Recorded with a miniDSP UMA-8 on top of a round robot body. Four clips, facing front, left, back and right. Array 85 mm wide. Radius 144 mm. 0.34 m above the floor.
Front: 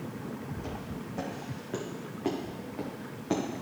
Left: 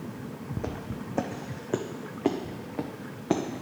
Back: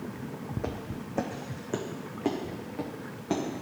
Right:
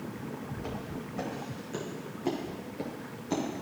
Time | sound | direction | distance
0.6 | footsteps | 145° left | 1.0 m